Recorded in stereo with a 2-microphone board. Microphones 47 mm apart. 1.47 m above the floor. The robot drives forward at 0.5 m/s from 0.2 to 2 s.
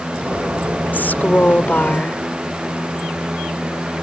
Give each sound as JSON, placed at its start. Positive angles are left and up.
{"t": 0.9, "sound": "a woman speaking", "side_deg": 45}